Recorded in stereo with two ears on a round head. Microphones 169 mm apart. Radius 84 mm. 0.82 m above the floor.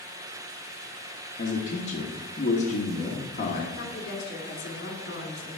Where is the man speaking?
40° left (ahead or behind), 1.2 m.